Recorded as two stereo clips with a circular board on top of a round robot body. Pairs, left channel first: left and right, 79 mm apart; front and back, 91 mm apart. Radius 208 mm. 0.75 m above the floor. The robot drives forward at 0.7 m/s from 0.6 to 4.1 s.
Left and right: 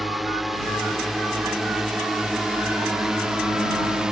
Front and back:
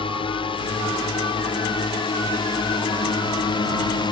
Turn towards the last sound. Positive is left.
turn(degrees=-10)